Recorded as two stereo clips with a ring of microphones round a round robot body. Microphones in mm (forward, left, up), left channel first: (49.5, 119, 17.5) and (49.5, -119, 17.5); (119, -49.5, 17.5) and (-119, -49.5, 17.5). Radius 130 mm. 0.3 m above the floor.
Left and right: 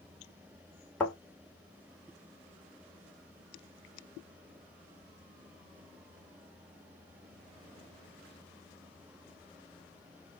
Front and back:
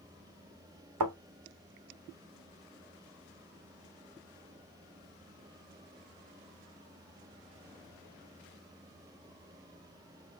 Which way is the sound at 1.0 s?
175° left.